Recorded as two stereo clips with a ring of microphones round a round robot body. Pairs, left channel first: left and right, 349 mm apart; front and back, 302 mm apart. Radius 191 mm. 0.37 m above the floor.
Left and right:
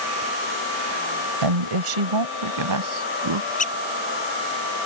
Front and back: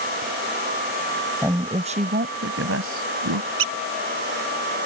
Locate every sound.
1.4 s a woman speaking: 95° right; by 3.5 s 135° right
3.6 s a squeak: 160° left